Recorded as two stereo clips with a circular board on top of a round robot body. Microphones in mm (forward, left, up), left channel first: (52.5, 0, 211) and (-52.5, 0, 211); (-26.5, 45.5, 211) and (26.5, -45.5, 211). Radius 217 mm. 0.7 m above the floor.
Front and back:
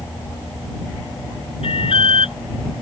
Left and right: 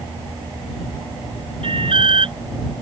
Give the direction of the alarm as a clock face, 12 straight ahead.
1 o'clock.